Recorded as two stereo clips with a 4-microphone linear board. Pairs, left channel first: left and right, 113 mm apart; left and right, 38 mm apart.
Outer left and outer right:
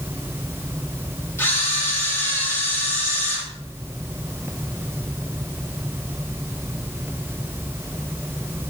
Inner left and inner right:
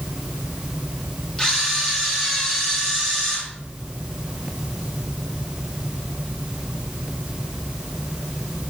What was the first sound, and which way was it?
A camera shutter, 20° left (ahead or behind).